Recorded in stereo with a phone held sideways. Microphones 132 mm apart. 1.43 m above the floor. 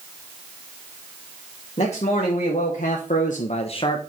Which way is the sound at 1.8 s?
50° left (ahead or behind).